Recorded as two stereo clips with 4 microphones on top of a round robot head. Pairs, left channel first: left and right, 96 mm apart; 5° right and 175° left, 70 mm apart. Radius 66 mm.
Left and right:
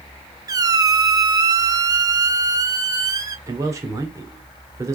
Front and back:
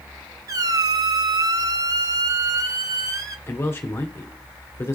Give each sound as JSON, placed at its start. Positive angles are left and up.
{"t": 0.5, "sound": "a squeak", "azimuth_deg": -140, "distance_m": 1.2}
{"t": 3.5, "sound": "a man speaking", "azimuth_deg": -45, "distance_m": 1.8}